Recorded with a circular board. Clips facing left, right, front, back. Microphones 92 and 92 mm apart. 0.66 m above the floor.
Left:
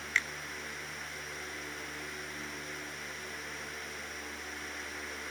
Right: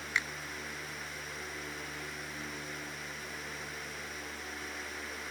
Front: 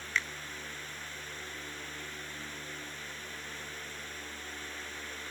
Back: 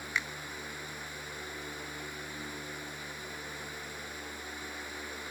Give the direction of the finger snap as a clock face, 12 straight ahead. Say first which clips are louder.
Left 1 dB, front 1 dB; 4 o'clock.